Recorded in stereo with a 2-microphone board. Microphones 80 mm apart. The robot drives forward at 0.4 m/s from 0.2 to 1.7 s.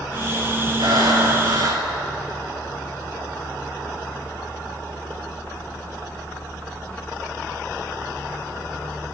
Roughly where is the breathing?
Right.